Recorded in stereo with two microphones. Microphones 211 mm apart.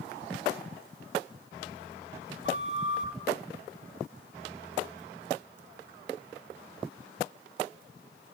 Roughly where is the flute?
Right.